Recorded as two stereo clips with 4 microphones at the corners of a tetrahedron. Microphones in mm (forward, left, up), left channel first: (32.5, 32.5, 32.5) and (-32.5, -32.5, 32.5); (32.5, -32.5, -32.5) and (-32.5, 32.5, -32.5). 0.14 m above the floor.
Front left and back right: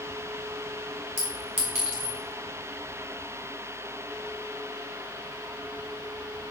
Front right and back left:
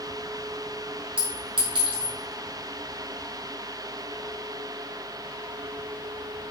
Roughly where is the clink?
Behind left.